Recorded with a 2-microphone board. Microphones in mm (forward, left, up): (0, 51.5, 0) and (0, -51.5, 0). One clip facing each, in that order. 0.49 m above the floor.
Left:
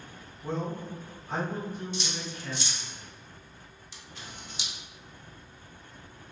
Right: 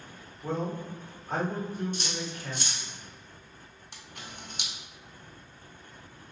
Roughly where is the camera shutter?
Right.